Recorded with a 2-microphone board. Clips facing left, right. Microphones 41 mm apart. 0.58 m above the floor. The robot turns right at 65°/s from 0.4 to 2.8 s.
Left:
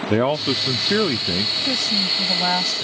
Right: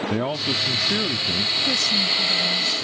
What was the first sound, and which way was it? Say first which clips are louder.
A man speaking: left 9 dB; 60° left.